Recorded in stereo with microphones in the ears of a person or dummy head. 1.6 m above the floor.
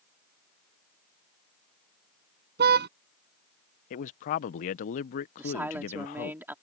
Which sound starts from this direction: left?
A man speaking, at 3.9 s.